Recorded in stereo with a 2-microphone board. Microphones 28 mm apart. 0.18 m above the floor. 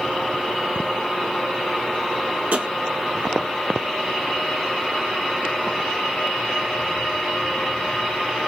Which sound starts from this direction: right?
Tapping, at 2.5 s.